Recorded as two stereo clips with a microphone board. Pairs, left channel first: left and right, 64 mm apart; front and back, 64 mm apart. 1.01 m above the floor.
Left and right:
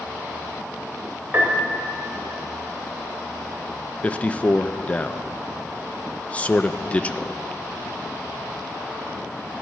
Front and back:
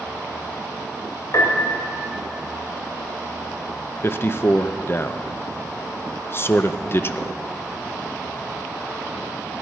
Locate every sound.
1.3 s a piano: 30° right, 3 m
4.0 s a man speaking: 30° left, 0.5 m